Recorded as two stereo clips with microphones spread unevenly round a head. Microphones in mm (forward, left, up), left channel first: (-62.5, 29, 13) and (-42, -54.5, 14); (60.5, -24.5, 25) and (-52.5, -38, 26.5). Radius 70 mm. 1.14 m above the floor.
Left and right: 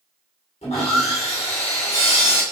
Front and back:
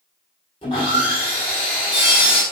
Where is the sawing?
65° left, 1.5 m.